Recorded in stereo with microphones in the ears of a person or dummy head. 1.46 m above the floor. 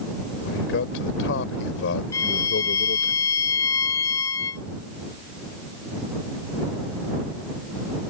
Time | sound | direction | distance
0.4 | a man speaking | 70° left (ahead or behind) | ?
2.1 | a violin | 15° left (ahead or behind) | ?